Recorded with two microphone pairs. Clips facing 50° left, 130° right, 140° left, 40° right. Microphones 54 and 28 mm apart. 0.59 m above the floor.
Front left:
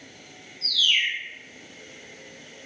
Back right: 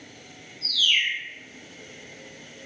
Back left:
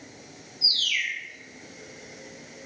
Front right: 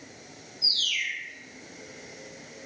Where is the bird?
170° left, 1.9 m.